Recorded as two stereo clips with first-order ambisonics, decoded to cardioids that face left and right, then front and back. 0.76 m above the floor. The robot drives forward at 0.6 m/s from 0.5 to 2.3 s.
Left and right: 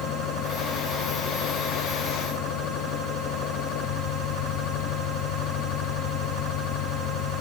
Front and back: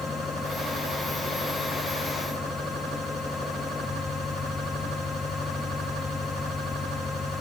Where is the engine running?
70° left; by 7.4 s 75° left.